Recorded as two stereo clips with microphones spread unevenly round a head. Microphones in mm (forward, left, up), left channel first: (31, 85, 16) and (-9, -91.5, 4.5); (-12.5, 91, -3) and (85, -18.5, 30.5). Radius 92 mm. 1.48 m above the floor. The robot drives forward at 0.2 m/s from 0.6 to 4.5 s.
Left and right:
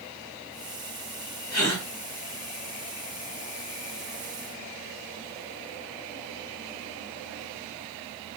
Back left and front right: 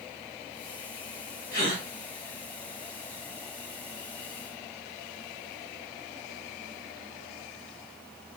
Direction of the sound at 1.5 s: 140° left.